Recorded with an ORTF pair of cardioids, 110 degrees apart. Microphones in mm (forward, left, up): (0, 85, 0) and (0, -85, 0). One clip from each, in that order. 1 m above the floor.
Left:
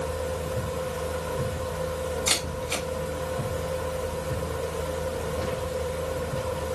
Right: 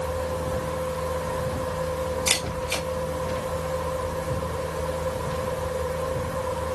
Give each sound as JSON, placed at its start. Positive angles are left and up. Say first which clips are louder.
{"t": 0.0, "sound": "a fan", "louder": "right 2 dB", "azimuth_deg": -10, "distance_m": 6.0}
{"t": 2.3, "sound": "a camera shutter", "louder": "right 1 dB", "azimuth_deg": -25, "distance_m": 3.5}